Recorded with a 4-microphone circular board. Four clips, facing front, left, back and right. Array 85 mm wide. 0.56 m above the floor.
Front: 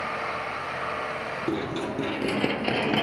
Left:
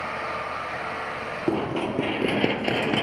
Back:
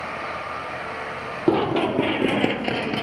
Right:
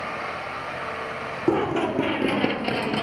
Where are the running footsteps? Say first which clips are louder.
Right 4 dB, back 11 dB; 165° right, 0.8 m; by 3.0 s 55° left, 0.5 m.